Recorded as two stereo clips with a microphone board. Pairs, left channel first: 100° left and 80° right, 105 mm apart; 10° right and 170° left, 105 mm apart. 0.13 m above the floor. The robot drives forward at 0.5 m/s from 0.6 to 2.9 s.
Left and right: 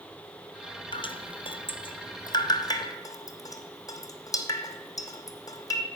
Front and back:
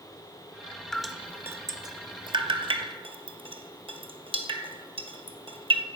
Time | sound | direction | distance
0.9 | dripping | 70° left | 0.5 m